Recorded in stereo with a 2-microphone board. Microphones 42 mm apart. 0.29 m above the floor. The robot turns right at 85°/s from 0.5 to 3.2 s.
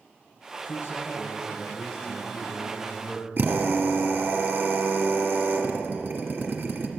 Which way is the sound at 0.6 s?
75° left.